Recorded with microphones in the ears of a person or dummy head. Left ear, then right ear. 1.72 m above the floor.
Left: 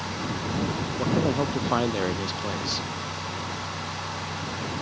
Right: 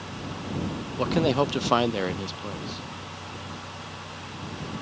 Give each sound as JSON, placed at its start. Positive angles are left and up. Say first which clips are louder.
{"t": 1.0, "sound": "a man speaking", "louder": "right 3 dB", "side_deg": -70}